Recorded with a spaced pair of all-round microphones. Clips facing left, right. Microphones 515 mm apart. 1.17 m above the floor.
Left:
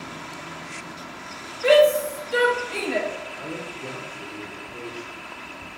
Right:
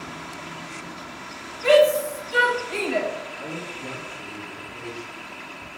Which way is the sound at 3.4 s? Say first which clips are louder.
Left 1 dB; 45° right (ahead or behind).